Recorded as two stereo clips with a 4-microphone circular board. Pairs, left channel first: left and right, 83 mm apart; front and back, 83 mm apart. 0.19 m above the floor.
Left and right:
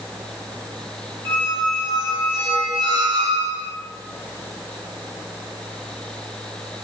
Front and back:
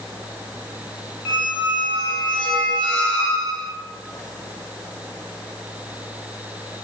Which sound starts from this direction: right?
A squeak, at 1.2 s.